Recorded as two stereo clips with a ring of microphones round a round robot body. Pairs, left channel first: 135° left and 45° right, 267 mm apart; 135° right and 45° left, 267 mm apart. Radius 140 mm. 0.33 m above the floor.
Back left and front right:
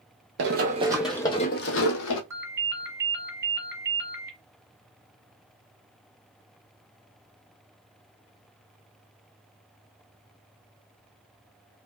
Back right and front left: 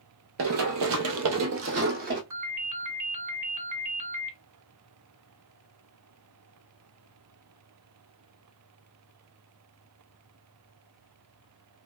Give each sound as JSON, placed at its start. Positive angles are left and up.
{"t": 0.4, "sound": "running footsteps", "azimuth_deg": 5, "distance_m": 0.6}
{"t": 2.3, "sound": "a ringtone", "azimuth_deg": 35, "distance_m": 1.5}